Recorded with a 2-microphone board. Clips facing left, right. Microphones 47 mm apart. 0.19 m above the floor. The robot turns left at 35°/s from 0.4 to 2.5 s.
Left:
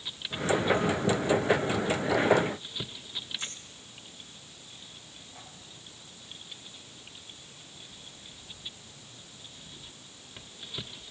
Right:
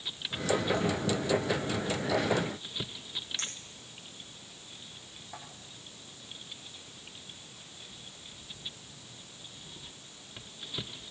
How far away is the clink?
About 7.5 m.